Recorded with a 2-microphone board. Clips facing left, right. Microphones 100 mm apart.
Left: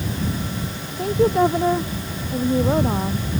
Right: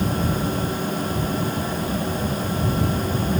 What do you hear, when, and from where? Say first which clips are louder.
1.0 s a woman speaking: left 7 dB; 85° left; by 3.3 s 80° left